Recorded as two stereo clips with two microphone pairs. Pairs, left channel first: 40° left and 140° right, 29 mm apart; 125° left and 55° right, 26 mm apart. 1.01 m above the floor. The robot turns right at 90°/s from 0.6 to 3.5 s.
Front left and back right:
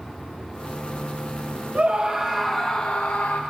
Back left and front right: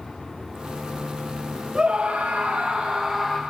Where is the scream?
105° right, 0.8 m; by 3.4 s 40° left, 0.8 m.